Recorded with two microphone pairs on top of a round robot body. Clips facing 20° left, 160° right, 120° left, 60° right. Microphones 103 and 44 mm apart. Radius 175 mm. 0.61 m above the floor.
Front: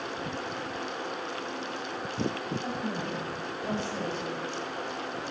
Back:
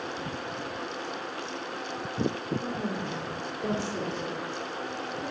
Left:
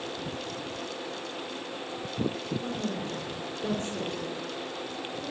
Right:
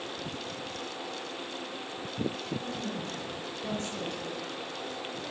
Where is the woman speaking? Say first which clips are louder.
Back 1 dB, left 3 dB; 175° right, 2.5 m.